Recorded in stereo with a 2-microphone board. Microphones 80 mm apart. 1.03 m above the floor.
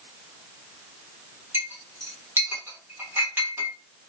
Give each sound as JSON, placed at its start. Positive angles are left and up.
{"t": 1.5, "sound": "a clink", "side_deg": -30, "distance_m": 1.1}